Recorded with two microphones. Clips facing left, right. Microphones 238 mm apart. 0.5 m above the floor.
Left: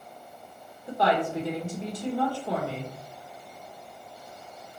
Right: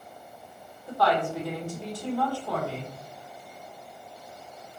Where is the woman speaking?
20° left (ahead or behind), 1.1 m.